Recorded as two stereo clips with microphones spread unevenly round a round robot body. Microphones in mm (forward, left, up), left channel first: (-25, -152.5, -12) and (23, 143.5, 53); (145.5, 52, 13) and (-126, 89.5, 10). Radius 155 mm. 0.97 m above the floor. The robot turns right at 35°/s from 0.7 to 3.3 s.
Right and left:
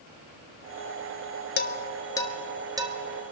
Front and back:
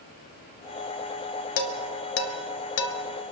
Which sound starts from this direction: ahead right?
Dishes clattering, at 1.6 s.